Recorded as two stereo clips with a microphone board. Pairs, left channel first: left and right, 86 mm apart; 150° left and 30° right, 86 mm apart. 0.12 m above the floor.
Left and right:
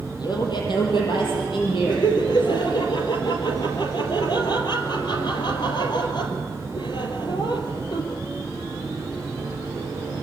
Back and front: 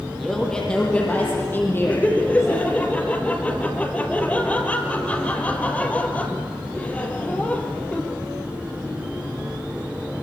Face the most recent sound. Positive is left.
turn(degrees=75)